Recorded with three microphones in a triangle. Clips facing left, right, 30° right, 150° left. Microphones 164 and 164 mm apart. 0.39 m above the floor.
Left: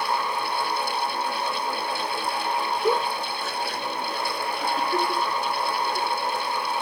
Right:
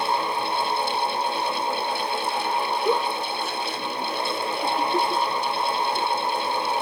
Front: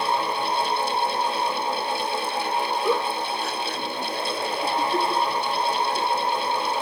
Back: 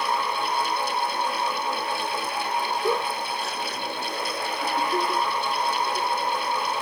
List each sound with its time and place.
2.8 s a giggle: 100° left, 3.5 m